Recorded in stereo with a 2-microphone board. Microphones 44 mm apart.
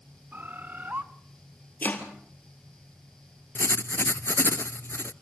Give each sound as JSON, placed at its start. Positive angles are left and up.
{"t": 0.3, "sound": "a bird", "side_deg": -45, "distance_m": 1.3}
{"t": 1.8, "sound": "chopping", "side_deg": 40, "distance_m": 2.5}
{"t": 3.5, "sound": "writing", "side_deg": 60, "distance_m": 0.5}